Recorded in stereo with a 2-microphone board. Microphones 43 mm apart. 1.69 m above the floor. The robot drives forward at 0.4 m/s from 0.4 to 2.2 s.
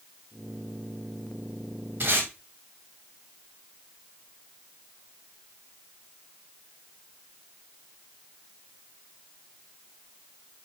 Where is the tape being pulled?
45° right (ahead or behind), 2.5 m.